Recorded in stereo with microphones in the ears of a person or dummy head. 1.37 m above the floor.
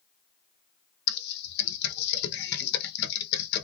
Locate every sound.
1.1 s typing on a keyboard: 65° left (ahead or behind), 0.7 m